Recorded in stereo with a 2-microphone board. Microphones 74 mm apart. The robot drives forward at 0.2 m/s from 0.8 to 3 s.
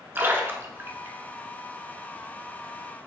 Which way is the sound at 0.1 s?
30° right (ahead or behind).